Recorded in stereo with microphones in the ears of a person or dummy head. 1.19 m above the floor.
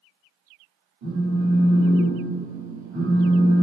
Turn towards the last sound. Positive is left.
turn(degrees=-35)  # may be behind; listen again after turning